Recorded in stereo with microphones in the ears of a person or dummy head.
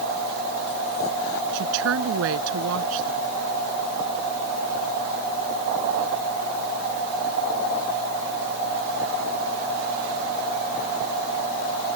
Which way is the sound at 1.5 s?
80° right.